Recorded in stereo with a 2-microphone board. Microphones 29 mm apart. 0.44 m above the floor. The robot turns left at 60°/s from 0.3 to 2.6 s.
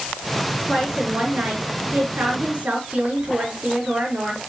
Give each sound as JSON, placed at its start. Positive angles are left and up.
{"t": 0.7, "sound": "a woman speaking", "azimuth_deg": -5, "distance_m": 5.0}